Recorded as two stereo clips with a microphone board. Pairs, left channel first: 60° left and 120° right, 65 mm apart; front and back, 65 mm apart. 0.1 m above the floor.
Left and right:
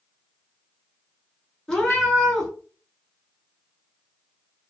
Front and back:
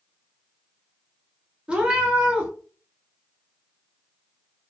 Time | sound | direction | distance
1.7 | a cat meowing | 130° left | 0.8 m